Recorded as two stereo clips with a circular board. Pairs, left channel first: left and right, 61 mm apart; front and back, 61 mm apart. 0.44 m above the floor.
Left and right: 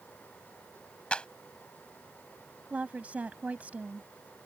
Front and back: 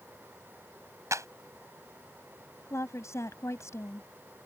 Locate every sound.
1.1 s a clap: 160° left
2.7 s a woman speaking: 30° right